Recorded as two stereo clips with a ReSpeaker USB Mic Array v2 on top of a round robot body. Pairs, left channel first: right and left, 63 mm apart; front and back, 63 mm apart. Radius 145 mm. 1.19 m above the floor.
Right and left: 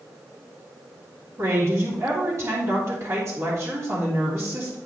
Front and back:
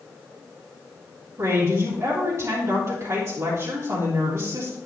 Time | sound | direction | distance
1.4 | a woman speaking | 135° left | 2.5 m